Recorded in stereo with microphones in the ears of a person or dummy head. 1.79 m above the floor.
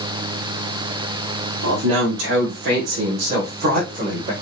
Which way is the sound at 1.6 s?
85° right.